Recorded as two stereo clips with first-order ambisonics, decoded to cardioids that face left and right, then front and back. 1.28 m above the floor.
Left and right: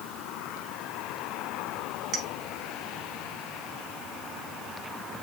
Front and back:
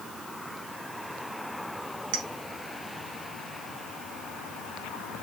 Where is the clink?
165° right, 1.4 m.